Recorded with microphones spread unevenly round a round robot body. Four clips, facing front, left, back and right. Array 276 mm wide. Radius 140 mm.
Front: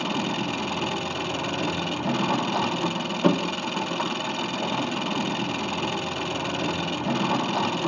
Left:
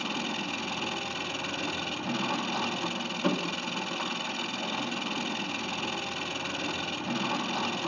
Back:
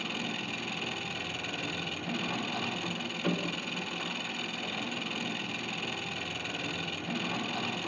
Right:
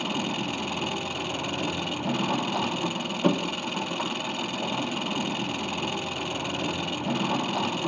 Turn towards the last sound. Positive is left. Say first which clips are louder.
# right 4 dB, front 11 dB
turn(degrees=-20)